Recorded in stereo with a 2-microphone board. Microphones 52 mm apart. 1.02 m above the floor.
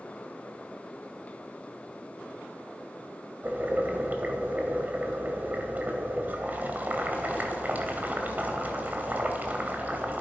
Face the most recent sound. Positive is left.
turn(degrees=-35)  # may be behind; listen again after turning